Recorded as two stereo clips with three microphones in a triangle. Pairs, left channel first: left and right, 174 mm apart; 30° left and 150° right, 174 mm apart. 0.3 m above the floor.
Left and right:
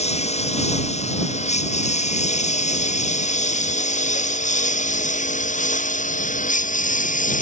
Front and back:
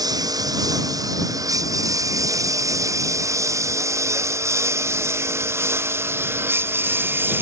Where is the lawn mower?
140° left; by 7.4 s 130° left.